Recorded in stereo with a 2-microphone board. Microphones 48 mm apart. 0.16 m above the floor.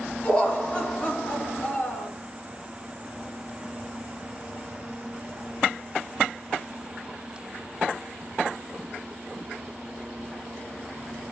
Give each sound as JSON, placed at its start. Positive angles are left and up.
{"t": 0.2, "sound": "laughter", "side_deg": 15, "distance_m": 1.8}